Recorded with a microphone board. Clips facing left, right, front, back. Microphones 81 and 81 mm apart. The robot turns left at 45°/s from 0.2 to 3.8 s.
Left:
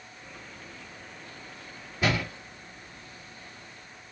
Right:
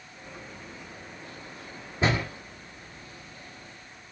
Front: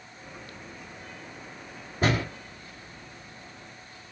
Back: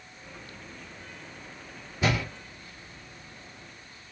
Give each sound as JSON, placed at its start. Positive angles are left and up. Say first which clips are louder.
{"t": 2.0, "sound": "a door slam", "louder": "right 1 dB, front 2 dB", "azimuth_deg": -35, "distance_m": 1.7}